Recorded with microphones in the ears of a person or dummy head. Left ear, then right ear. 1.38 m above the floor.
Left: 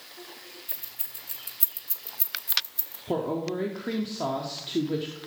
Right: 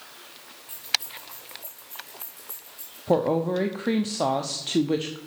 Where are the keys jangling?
5° left (ahead or behind), 0.7 m; by 3.0 s 40° left (ahead or behind), 1.6 m.